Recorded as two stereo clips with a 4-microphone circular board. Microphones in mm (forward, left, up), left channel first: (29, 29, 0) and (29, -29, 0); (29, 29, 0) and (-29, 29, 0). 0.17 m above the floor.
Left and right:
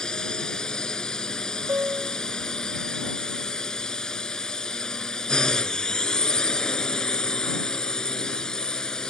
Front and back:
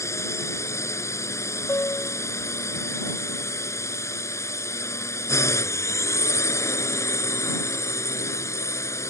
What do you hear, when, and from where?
0.0 s a drone: 15° left
1.7 s a piano: 45° right